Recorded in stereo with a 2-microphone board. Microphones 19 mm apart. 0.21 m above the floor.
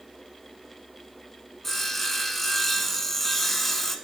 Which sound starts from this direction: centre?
Sawing, at 1.6 s.